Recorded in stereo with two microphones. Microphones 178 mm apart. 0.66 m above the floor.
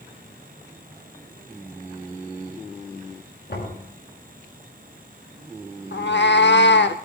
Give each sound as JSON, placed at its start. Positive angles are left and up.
{"t": 3.5, "sound": "knocking", "side_deg": 70, "distance_m": 6.5}
{"t": 5.9, "sound": "a cat meowing", "side_deg": 90, "distance_m": 0.7}